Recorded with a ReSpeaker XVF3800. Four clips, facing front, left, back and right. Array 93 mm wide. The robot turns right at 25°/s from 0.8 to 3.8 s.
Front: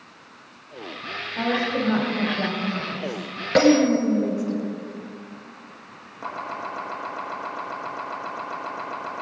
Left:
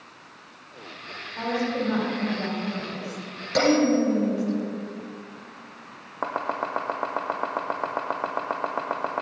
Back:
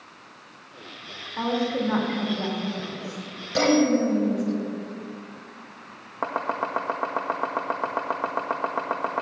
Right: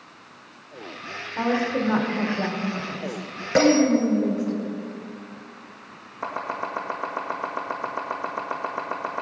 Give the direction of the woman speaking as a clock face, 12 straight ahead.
3 o'clock.